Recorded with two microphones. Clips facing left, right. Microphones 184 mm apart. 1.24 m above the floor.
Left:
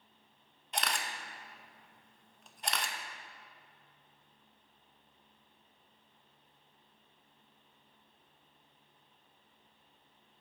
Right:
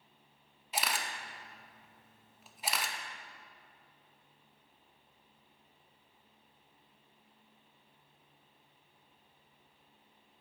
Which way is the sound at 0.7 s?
5° right (ahead or behind).